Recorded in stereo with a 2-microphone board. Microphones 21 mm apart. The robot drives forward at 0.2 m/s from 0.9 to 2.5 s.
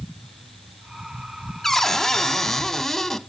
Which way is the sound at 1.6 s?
15° left (ahead or behind).